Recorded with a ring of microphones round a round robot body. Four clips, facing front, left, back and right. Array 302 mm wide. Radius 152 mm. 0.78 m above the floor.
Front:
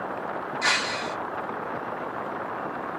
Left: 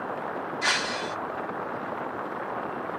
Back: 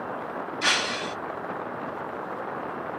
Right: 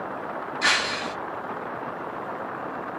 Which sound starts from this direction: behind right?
Breaking glass, at 0.6 s.